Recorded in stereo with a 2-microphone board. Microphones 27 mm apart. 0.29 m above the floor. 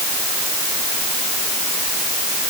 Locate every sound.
Only background noise.